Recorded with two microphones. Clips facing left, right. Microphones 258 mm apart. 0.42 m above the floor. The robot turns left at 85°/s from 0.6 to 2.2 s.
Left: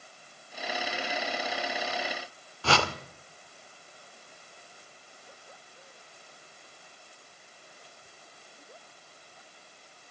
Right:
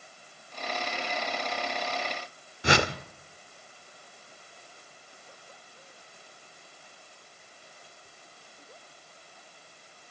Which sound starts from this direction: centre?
A whoosh, at 2.6 s.